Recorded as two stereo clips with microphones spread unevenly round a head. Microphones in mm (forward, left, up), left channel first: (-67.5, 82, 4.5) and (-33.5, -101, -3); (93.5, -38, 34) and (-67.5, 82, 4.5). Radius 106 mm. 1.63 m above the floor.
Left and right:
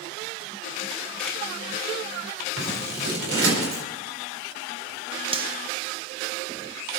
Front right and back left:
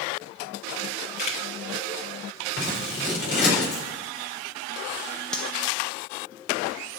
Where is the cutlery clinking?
100° right, 0.8 m.